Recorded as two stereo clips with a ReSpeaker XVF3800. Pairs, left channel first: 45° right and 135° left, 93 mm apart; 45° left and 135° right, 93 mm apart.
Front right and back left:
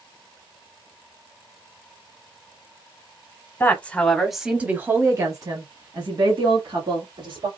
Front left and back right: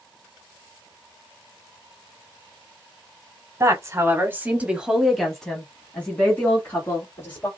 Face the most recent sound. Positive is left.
turn(degrees=110)